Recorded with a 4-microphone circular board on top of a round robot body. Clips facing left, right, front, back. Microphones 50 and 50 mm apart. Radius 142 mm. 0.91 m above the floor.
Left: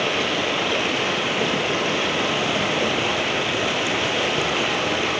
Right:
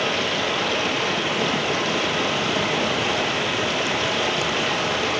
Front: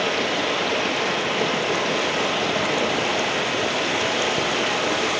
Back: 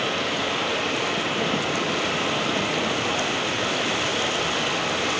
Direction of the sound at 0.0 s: 25° left.